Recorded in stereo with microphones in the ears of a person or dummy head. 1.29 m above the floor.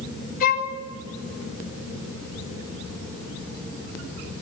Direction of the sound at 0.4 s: 50° left (ahead or behind).